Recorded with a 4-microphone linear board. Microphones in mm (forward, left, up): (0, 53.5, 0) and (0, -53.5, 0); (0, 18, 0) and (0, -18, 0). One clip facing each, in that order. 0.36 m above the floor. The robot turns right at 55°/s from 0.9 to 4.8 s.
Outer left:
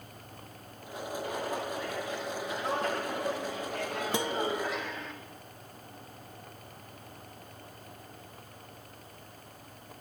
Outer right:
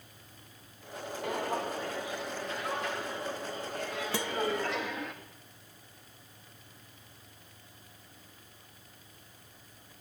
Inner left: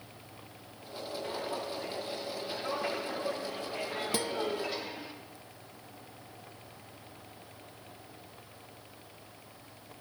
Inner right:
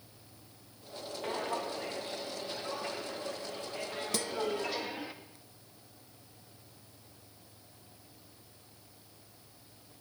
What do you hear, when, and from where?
1.2 s footsteps: 70° right (ahead or behind), 5.5 m; by 5.1 s 5° right (ahead or behind), 5 m
4.1 s a guitar: 20° left (ahead or behind), 0.6 m; by 4.4 s 15° left (ahead or behind), 0.6 m